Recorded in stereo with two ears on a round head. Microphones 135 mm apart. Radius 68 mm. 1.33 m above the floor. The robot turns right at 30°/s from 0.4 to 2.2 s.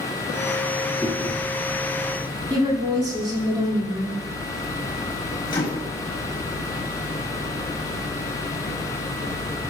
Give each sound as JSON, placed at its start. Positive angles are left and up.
{"t": 1.0, "sound": "chewing", "side_deg": -5, "distance_m": 3.0}
{"t": 2.5, "sound": "a woman speaking", "side_deg": -30, "distance_m": 2.5}
{"t": 5.5, "sound": "a microwave", "side_deg": 30, "distance_m": 1.6}